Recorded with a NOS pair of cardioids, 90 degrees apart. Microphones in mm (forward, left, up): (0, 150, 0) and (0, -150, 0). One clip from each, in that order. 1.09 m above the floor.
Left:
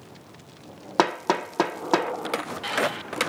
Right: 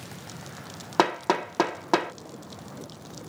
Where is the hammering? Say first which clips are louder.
Left 1 dB; 5° left.